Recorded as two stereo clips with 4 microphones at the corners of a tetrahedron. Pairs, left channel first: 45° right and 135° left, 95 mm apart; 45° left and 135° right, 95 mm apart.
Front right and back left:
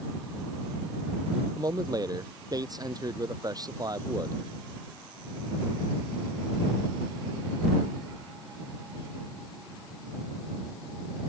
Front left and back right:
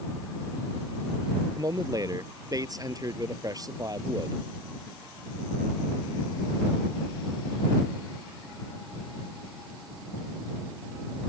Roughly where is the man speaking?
Behind.